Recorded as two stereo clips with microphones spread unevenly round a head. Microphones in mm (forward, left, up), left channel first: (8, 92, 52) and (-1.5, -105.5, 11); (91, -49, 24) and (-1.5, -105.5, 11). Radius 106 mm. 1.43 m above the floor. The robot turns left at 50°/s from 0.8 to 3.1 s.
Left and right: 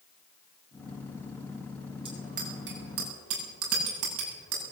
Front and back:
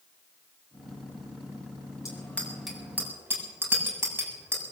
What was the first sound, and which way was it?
A bicycle bell, 25° right.